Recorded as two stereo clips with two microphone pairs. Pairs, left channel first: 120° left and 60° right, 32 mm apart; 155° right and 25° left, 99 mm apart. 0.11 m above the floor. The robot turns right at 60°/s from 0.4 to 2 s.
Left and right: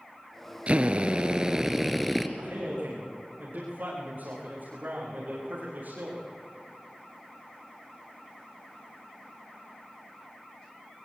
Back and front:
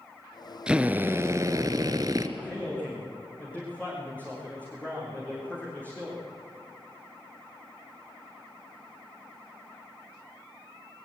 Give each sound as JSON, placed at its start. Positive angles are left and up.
{"t": 0.7, "sound": "a drill", "azimuth_deg": -55, "distance_m": 1.5}
{"t": 2.4, "sound": "a man speaking", "azimuth_deg": -80, "distance_m": 7.0}